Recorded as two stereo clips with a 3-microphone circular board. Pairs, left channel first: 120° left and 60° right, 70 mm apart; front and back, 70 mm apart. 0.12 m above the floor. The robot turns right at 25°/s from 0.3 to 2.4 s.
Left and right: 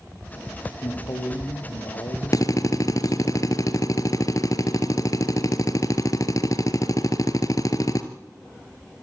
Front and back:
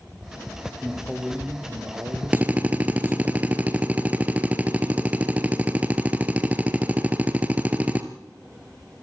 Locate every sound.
0.8 s a man speaking: 95° left, 4 m; by 3.3 s 135° left, 4 m
2.3 s a drill: 115° left, 1.7 m